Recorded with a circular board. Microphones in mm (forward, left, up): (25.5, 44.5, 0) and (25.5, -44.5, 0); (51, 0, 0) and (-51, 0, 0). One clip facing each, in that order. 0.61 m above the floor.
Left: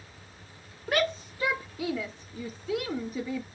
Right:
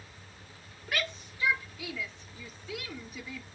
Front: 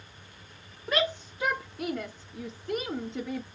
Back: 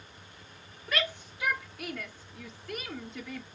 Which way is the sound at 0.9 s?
55° left.